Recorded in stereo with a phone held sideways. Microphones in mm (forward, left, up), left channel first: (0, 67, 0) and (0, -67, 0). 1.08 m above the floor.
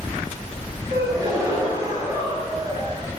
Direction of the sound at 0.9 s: 25° right (ahead or behind).